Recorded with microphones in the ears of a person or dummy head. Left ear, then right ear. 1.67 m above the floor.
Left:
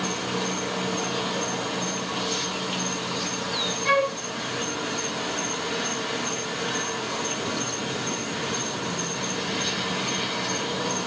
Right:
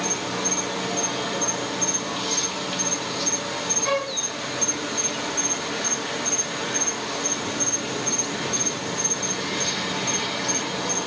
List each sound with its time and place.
0.0 s an insect: centre (ahead or behind), 1.5 m
3.9 s a flute: 5° left (ahead or behind), 1.7 m